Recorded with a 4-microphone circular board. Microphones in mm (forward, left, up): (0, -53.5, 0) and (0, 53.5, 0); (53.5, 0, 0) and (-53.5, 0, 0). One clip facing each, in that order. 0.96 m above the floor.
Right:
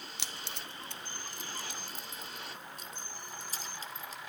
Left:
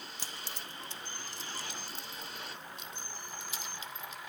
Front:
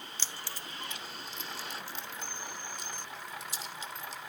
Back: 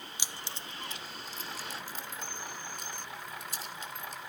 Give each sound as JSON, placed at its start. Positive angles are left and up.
{"t": 0.2, "sound": "keys jangling", "azimuth_deg": -105, "distance_m": 0.6}